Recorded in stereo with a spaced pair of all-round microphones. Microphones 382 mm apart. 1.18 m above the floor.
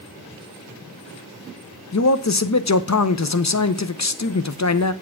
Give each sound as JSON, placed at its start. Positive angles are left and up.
{"t": 1.9, "sound": "a man speaking", "side_deg": 45, "distance_m": 0.7}